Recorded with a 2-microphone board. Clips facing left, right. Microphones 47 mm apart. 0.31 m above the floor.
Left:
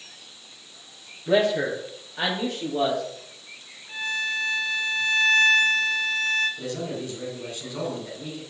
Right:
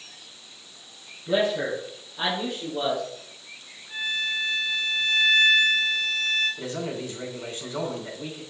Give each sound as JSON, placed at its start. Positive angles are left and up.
{"t": 1.3, "sound": "a man speaking", "side_deg": 70, "distance_m": 5.0}
{"t": 3.9, "sound": "a violin", "side_deg": 65, "distance_m": 2.0}
{"t": 6.6, "sound": "a man speaking", "side_deg": -30, "distance_m": 3.0}